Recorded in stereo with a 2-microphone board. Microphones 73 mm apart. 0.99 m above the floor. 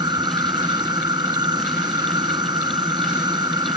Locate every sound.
0.0 s an insect: 75° right (ahead or behind)